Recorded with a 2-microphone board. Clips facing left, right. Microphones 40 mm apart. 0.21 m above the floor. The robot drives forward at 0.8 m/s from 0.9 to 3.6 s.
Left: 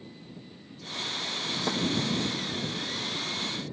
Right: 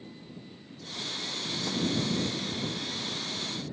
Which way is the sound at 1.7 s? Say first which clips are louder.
Left 3 dB; 40° left (ahead or behind).